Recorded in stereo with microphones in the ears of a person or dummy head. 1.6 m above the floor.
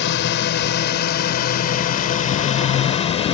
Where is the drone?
60° left (ahead or behind); by 3.3 s 30° left (ahead or behind).